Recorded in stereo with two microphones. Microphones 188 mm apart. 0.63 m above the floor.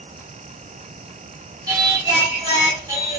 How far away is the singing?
About 1.5 m.